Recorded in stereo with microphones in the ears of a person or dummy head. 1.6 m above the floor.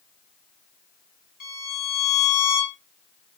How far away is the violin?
About 1.2 m.